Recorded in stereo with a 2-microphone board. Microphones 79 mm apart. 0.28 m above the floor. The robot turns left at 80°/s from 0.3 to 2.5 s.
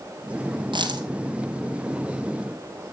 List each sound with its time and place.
0.7 s a dropped coin: 85° right, 1.8 m; by 1.1 s 55° right (ahead or behind), 1.8 m